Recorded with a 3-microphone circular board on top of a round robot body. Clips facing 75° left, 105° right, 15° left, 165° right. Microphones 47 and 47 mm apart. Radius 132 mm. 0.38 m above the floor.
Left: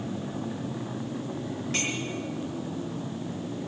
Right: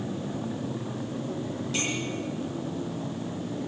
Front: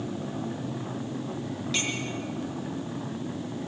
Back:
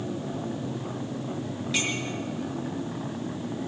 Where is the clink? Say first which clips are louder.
Even, back 2 dB; 115° left, 6.5 m.